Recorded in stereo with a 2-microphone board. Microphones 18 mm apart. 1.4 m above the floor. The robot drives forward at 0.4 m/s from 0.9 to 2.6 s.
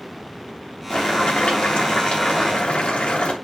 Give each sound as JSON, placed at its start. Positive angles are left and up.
{"t": 0.9, "sound": "boiling", "side_deg": 75, "distance_m": 2.0}